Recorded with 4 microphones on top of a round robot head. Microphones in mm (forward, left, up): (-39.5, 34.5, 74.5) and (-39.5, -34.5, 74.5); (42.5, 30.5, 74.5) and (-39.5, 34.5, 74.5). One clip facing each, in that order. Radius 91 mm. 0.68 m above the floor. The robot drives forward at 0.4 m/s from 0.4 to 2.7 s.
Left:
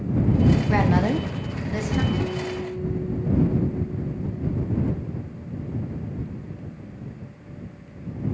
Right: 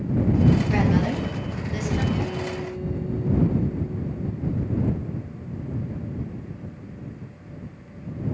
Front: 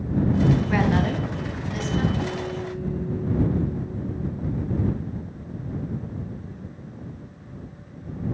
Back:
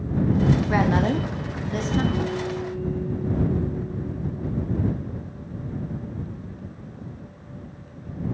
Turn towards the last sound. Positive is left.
turn(degrees=155)